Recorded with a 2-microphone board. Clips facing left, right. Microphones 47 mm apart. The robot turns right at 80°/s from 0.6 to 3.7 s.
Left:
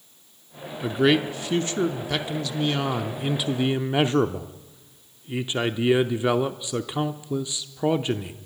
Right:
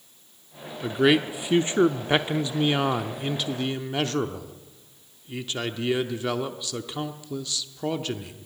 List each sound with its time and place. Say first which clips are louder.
0.8 s a man speaking: even; 5° left (ahead or behind), 0.8 m; by 8.3 s 20° left (ahead or behind), 0.8 m